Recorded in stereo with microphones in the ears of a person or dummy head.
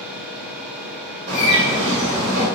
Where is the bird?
35° right (ahead or behind), 4 m.